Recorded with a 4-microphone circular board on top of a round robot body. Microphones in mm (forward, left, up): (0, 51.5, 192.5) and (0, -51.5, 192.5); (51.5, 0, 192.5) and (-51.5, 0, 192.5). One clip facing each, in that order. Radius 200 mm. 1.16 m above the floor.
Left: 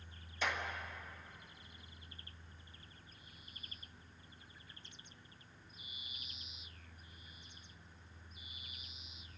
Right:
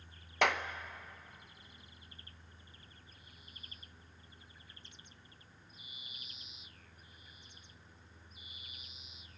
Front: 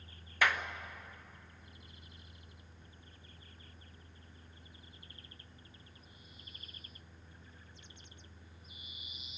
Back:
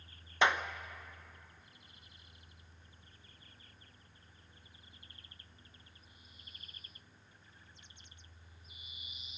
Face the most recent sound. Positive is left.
turn(degrees=-110)